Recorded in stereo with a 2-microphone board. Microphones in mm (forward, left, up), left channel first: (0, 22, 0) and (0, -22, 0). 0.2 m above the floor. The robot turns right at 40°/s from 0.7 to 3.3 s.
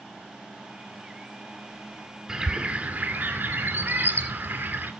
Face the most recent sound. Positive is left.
turn(degrees=-130)